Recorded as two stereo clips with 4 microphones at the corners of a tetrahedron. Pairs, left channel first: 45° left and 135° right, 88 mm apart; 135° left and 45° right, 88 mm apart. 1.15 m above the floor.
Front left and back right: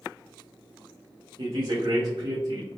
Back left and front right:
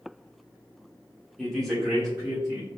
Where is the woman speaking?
140° right, 1.6 m; by 2.7 s 120° right, 1.9 m.